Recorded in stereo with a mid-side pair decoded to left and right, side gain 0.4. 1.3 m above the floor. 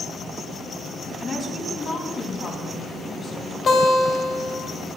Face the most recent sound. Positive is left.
turn(degrees=40)